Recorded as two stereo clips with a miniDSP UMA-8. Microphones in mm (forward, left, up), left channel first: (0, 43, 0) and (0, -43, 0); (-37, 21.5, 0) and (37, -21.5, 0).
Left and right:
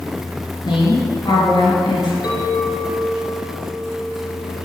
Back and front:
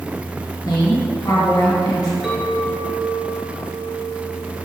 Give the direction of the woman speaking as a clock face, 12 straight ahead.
8 o'clock.